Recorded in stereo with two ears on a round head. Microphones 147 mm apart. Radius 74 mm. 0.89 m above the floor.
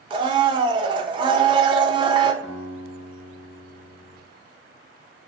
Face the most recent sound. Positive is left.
turn(degrees=70)  # may be behind; listen again after turning